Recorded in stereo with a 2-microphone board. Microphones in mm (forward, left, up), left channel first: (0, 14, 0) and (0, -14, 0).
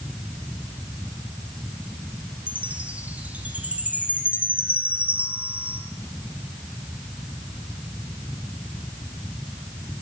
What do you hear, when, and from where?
2.5 s a chime: 55° right (ahead or behind), 4 m